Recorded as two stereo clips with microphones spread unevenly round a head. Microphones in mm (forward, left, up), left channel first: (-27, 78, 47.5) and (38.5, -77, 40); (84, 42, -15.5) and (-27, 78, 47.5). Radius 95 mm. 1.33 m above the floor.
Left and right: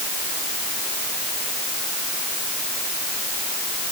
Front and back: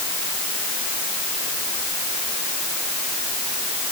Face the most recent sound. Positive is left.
No sound to turn to.